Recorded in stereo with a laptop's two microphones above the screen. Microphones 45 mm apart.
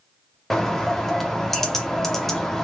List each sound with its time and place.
0.5 s a bird: 10° left (ahead or behind), 0.5 m